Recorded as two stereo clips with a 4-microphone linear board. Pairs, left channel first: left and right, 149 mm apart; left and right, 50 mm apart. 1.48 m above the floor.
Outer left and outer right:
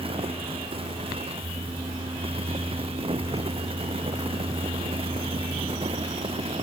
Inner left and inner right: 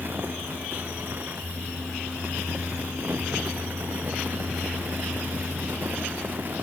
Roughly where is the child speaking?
No child speaking in this recording.